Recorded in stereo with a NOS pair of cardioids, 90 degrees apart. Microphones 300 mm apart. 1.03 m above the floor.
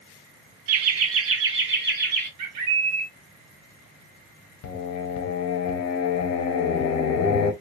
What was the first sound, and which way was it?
Laughter, 65° right.